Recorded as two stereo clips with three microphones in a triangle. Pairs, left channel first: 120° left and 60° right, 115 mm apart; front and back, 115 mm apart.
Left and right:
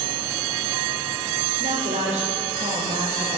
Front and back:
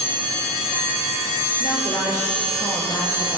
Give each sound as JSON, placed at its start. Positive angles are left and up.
{"t": 1.6, "sound": "a woman speaking", "azimuth_deg": -65, "distance_m": 8.0}